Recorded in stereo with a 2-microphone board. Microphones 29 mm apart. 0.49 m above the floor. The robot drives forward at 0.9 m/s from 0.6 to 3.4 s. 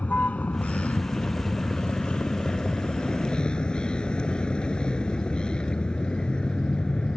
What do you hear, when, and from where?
0.0 s a vehicle: 60° left (ahead or behind); by 7.2 s 35° left (ahead or behind)